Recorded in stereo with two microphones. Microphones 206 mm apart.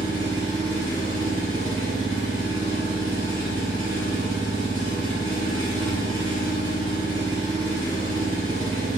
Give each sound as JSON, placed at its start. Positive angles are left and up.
{"t": 0.0, "sound": "an engine running", "side_deg": -65, "distance_m": 1.4}